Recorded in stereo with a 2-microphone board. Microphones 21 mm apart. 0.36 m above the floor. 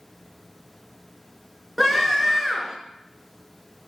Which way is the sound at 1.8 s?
Centre (ahead or behind).